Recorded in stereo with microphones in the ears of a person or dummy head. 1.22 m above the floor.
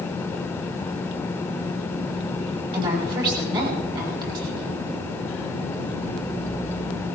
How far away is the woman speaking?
About 6 m.